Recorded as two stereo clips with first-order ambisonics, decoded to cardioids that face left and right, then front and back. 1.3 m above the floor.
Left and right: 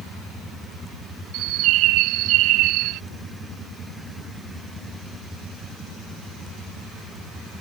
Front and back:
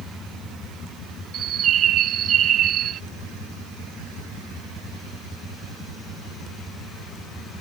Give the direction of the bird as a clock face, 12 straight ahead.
4 o'clock.